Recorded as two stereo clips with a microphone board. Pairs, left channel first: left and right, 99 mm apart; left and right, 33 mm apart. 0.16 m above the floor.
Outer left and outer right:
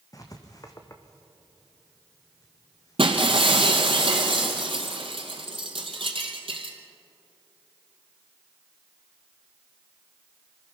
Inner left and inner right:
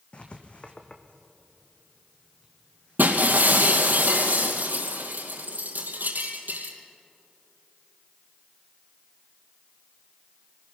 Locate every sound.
0.1 s writing: 35° left (ahead or behind), 2.0 m
3.0 s breaking glass: 65° right (ahead or behind), 2.5 m